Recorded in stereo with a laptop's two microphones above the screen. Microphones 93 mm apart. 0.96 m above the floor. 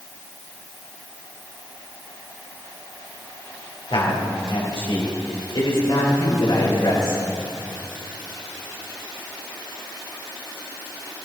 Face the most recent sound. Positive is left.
turn(degrees=80)